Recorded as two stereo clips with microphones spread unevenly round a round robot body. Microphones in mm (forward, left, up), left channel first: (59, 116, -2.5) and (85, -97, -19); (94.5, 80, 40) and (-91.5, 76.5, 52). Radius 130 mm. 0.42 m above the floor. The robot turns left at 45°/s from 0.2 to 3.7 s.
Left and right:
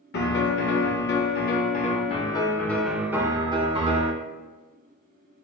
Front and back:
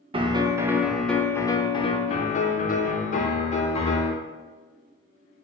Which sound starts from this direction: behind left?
A piano, at 0.1 s.